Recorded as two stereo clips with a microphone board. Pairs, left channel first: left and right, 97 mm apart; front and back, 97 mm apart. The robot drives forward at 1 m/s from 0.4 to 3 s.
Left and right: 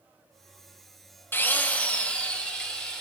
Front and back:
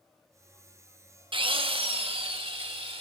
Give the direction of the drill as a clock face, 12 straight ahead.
7 o'clock.